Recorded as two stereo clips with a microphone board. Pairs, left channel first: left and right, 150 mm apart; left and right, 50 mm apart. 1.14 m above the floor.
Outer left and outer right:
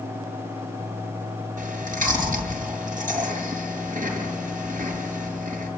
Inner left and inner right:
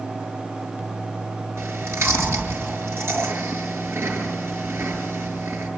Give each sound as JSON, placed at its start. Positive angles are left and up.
{"t": 1.6, "sound": "chewing", "side_deg": -65, "distance_m": 6.5}